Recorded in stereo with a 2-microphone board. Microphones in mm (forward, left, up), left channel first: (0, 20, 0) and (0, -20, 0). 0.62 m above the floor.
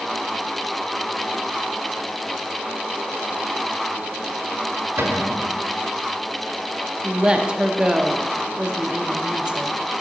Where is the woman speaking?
20° right (ahead or behind), 0.6 m.